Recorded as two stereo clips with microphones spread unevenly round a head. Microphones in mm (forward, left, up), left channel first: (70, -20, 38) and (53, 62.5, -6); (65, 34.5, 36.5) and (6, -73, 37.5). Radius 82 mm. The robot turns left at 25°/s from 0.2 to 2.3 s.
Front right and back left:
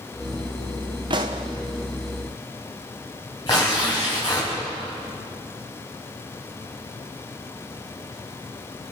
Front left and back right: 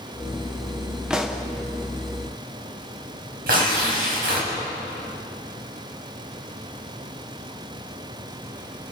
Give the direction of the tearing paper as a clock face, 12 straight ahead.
5 o'clock.